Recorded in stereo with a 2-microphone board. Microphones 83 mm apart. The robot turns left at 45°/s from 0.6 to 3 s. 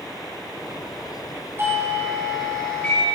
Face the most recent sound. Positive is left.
turn(degrees=155)